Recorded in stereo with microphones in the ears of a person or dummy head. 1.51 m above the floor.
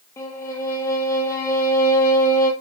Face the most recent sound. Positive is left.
turn(degrees=15)  # may be behind; listen again after turning